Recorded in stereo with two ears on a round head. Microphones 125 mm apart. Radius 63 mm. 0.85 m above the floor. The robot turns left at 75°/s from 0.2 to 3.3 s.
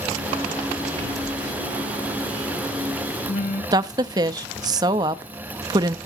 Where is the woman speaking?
25° right (ahead or behind), 0.6 m.